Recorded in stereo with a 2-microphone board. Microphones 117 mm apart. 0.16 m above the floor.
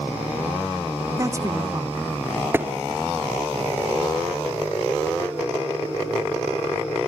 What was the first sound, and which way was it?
A woman speaking, 25° right (ahead or behind).